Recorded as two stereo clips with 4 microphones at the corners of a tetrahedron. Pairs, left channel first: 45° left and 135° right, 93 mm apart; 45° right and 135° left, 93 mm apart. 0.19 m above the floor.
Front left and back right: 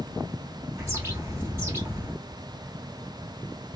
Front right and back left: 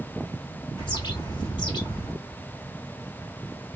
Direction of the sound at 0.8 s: 75° right.